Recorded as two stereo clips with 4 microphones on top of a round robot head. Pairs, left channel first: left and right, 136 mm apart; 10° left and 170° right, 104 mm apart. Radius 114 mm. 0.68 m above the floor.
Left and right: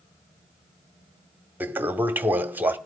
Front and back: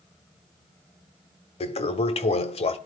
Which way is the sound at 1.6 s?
15° right.